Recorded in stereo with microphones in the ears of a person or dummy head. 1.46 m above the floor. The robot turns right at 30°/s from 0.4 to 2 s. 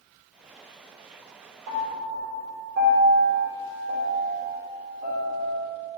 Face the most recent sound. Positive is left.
turn(degrees=-60)  # may be behind; listen again after turning